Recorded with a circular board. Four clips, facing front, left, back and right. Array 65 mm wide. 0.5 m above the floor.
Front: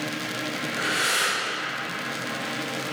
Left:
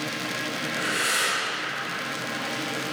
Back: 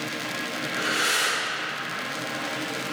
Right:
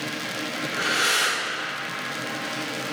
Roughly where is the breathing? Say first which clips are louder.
Right 4 dB, even; right.